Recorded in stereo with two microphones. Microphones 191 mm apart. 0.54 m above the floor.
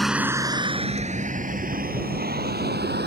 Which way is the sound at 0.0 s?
Centre (ahead or behind).